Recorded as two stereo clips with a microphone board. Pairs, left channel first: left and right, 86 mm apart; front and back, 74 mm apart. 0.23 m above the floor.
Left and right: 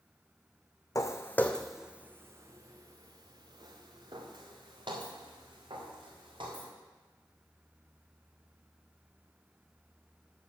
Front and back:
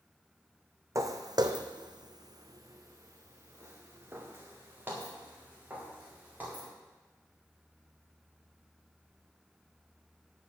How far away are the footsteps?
About 0.8 m.